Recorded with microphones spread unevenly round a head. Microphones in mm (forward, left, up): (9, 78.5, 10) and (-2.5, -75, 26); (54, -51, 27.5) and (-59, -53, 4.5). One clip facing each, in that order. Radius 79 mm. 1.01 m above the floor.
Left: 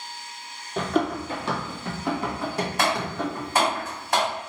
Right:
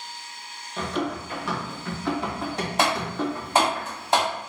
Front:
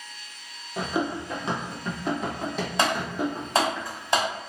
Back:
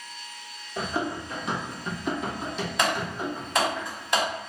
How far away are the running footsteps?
About 1.2 m.